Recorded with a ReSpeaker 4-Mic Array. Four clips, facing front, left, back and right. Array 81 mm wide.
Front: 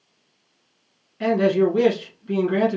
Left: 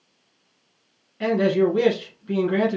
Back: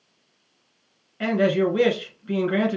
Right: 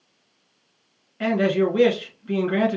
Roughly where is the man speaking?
Behind right.